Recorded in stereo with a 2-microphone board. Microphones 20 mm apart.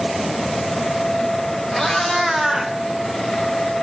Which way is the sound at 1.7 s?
5° left (ahead or behind).